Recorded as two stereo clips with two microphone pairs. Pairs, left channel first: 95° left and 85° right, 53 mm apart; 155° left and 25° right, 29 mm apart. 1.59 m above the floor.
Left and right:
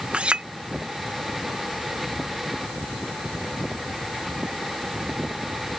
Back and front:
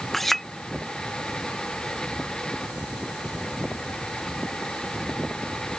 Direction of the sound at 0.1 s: 130° right.